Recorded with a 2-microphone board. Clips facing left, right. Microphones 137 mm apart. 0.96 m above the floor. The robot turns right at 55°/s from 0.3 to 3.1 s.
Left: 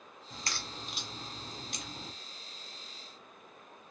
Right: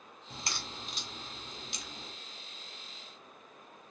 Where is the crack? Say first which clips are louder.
Even; 30° right (ahead or behind), 0.9 m; by 2.1 s 65° left (ahead or behind), 0.9 m.